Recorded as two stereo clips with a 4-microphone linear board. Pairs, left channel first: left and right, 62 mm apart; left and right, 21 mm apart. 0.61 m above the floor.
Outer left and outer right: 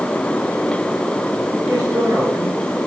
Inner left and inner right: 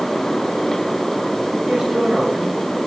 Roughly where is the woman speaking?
Right.